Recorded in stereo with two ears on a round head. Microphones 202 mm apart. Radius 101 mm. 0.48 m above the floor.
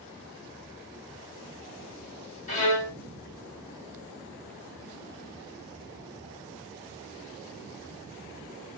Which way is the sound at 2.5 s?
35° left (ahead or behind).